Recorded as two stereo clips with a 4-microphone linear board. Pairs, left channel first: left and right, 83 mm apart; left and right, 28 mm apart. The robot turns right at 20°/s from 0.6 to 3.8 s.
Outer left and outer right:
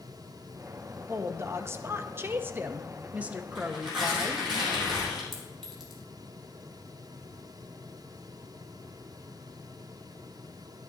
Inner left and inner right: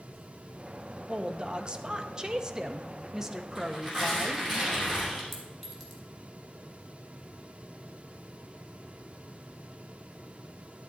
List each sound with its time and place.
1.1 s a woman speaking: 70° right, 0.8 m; by 4.5 s 15° right, 0.8 m
3.5 s tearing paper: 5° right (ahead or behind), 5.5 m; by 5.2 s centre (ahead or behind), 5.5 m
5.3 s a clink: centre (ahead or behind), 2.5 m